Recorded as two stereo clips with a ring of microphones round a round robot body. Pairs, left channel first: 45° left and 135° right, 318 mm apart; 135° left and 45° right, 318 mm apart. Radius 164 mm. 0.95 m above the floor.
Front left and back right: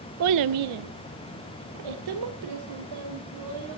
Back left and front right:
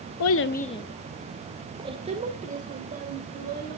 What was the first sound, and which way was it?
A child speaking, 175° left.